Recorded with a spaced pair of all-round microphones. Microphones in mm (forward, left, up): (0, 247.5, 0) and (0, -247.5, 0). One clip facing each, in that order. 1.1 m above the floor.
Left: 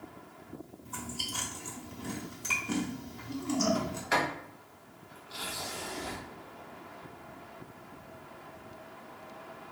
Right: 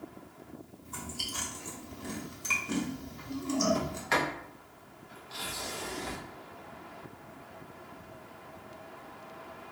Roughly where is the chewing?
Centre.